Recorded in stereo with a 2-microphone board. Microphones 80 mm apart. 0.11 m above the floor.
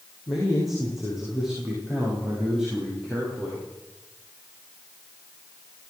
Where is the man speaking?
Centre (ahead or behind), 8 m; by 3.7 s 10° right (ahead or behind), 10.5 m.